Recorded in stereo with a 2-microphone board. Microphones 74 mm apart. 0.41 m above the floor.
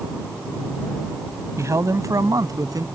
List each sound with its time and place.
1.6 s a man speaking: 40° right (ahead or behind); by 2.9 s 60° right (ahead or behind)